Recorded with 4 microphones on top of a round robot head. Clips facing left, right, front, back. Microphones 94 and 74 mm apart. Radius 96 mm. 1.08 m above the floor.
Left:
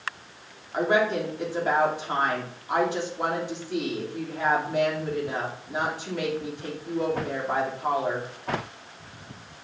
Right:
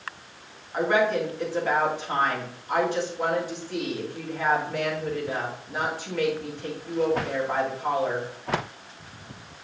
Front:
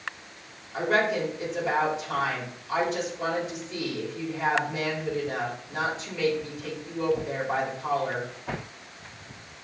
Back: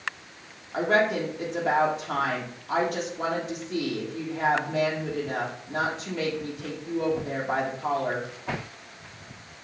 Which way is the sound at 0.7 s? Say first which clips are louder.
Right 1 dB, back 1 dB; 160° left.